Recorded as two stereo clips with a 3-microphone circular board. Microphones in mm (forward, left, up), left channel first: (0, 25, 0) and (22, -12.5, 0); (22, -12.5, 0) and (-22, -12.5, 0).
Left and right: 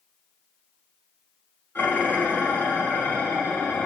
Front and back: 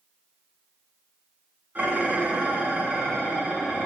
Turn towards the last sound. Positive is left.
turn(degrees=140)